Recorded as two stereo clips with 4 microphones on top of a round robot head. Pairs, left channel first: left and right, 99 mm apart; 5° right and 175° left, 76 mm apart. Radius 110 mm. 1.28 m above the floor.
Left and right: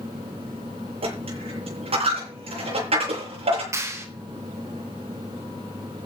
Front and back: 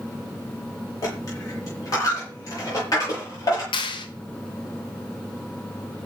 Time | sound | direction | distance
1.0 | a dropped coin | 55° right | 7 m
3.7 | a clap | 25° right | 1.9 m